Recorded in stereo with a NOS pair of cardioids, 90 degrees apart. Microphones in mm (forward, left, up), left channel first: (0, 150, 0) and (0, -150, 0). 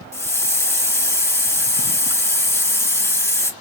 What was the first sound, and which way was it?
A hiss, 10° left.